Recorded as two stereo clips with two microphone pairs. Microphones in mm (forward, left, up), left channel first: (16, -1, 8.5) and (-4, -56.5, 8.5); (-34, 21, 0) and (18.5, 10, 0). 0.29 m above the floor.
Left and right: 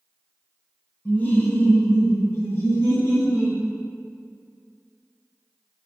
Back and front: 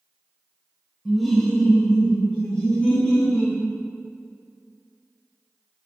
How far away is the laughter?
About 1.1 m.